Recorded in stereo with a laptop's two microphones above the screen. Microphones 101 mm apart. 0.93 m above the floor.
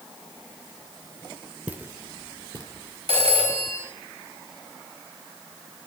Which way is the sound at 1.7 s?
15° right (ahead or behind).